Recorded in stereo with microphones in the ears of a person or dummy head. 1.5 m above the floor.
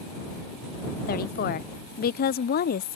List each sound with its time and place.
1.1 s a woman speaking: 50° left (ahead or behind)